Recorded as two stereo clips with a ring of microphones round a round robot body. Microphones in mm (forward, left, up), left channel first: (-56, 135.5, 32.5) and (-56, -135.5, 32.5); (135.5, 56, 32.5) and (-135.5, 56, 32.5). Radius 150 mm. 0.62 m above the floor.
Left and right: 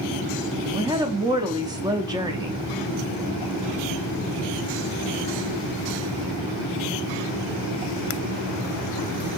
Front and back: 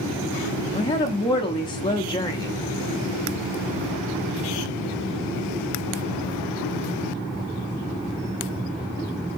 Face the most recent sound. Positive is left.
turn(degrees=-40)